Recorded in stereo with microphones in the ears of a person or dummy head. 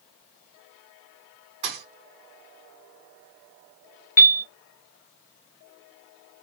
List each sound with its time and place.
1.6 s a thud: 20° right (ahead or behind), 1.3 m
4.2 s a piano: 45° left (ahead or behind), 0.7 m